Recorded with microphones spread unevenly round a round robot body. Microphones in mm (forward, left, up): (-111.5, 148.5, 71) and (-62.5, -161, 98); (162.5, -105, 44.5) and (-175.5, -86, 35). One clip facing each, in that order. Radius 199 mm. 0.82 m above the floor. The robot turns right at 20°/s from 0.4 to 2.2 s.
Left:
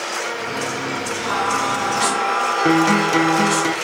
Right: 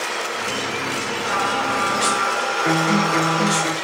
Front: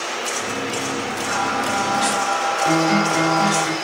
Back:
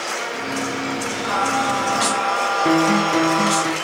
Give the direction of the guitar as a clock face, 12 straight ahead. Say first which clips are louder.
Left 4 dB, back 1 dB; 8 o'clock.